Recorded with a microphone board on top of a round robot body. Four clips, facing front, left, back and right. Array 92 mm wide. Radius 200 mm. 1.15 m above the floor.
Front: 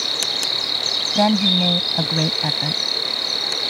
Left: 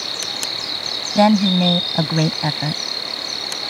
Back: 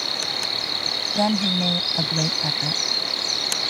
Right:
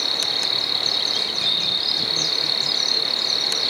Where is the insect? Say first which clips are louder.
Right 1 dB, front 1 dB; 35° right.